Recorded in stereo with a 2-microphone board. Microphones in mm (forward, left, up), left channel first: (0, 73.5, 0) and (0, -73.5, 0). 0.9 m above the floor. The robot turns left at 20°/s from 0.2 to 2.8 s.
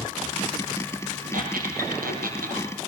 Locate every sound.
1.3 s a squeak: 75° right (ahead or behind), 5.5 m